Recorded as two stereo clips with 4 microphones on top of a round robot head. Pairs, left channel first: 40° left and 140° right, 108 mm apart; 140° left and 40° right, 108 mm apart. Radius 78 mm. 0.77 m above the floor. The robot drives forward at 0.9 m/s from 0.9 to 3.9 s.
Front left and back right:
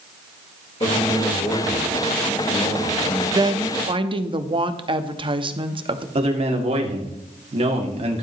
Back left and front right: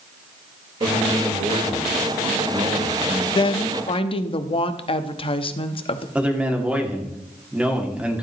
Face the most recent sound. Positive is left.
turn(degrees=-115)